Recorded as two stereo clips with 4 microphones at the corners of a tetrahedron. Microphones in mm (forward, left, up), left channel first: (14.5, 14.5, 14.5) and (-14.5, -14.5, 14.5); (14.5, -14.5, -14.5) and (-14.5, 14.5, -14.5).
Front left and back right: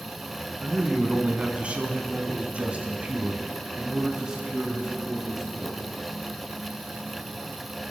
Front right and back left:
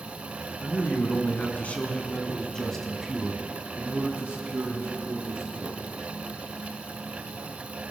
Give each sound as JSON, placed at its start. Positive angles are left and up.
{"t": 0.6, "sound": "a man speaking", "azimuth_deg": -80, "distance_m": 3.0}